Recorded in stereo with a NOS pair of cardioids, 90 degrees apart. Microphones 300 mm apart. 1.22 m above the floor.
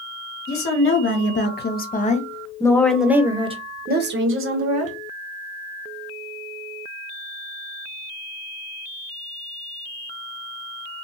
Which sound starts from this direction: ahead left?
A woman speaking, at 0.5 s.